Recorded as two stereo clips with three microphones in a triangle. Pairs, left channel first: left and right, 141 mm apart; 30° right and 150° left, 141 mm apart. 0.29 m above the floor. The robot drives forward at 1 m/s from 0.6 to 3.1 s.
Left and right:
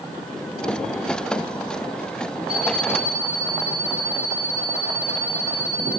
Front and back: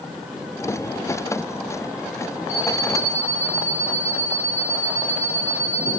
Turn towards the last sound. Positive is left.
turn(degrees=-175)